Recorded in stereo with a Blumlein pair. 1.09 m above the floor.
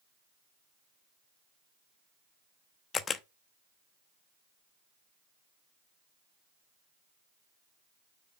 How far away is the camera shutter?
About 0.8 m.